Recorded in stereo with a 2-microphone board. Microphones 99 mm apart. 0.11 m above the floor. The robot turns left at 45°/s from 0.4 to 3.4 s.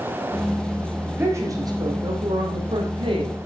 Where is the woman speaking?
20° right, 5.5 m; by 3.4 s 120° right, 5.5 m.